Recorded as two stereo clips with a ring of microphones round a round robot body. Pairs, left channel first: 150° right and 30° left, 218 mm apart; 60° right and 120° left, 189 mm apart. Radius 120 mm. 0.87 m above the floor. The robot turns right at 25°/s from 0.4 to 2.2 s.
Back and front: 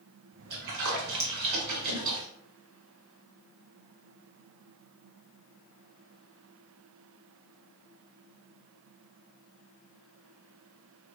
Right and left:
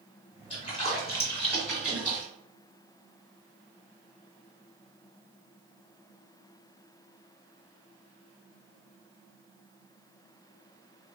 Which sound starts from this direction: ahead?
A splash, at 0.5 s.